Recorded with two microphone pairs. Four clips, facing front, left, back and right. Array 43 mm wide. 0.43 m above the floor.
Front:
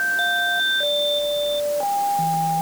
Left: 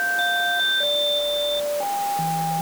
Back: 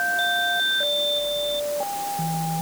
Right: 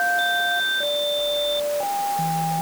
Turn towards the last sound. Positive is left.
No sound to turn to.